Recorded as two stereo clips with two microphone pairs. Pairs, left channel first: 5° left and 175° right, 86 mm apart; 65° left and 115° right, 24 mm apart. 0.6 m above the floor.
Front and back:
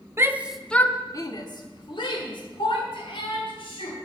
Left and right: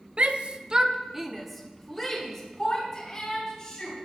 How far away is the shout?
About 0.9 m.